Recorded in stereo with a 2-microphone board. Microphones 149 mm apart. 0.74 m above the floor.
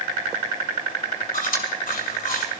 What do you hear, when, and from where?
1.3 s chewing: 70° left (ahead or behind), 2 m